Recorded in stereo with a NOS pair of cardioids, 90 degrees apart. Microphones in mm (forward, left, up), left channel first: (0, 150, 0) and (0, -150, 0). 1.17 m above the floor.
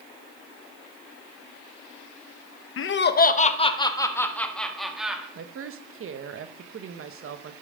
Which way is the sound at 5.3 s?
45° right.